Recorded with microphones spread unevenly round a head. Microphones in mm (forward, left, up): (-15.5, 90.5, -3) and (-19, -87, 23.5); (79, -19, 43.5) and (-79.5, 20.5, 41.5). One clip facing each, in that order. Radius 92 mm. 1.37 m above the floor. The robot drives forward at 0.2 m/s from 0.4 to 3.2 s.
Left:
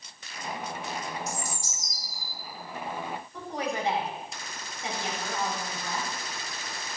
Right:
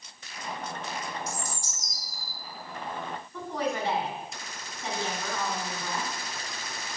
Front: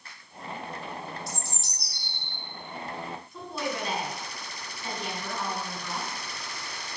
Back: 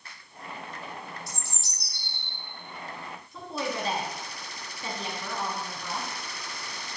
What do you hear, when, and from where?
1.3 s a bird: 105° right, 3 m; by 2.3 s 110° right, 3 m
3.3 s a woman speaking: 165° left, 3.5 m